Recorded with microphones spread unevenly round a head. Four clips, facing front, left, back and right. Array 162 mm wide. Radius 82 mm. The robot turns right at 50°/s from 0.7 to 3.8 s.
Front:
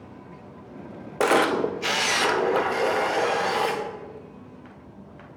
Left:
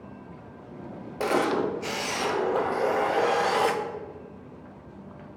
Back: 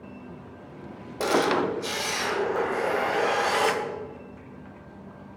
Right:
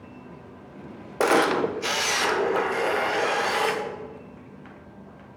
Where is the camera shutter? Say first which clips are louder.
Right 4 dB, front 2 dB; 40° right, 0.5 m; by 3.8 s 85° left, 0.5 m.